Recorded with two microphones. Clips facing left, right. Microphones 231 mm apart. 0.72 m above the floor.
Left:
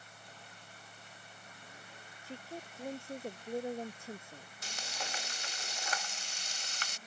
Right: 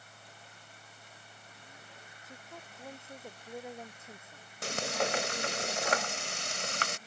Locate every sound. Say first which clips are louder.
2.2 s a woman speaking: left 7 dB; 30° left (ahead or behind)
4.6 s frying: right 14 dB; 75° right (ahead or behind)